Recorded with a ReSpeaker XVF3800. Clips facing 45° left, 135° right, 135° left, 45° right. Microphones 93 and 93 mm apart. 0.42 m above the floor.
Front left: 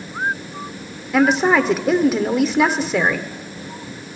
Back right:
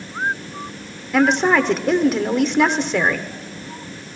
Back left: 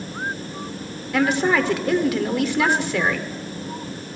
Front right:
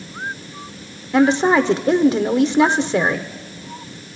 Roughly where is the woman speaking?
Ahead right.